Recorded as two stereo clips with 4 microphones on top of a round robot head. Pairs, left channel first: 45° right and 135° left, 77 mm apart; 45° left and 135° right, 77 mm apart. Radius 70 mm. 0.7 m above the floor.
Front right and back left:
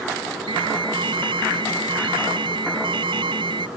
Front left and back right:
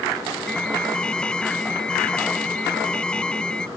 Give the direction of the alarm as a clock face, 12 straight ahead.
8 o'clock.